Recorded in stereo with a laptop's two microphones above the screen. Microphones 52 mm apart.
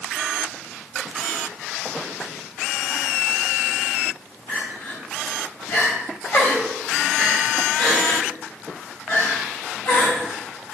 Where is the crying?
60° left (ahead or behind), 3 m.